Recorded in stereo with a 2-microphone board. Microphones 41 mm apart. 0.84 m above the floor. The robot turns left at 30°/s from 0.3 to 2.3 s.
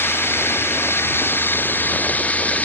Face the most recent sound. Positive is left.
turn(degrees=40)